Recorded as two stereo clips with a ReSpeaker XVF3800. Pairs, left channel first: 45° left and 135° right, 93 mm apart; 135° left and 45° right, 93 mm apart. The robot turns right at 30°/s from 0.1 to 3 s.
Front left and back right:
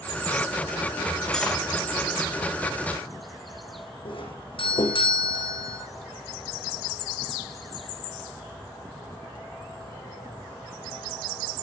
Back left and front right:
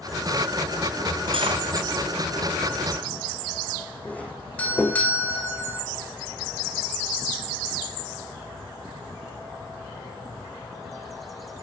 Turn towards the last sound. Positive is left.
turn(degrees=60)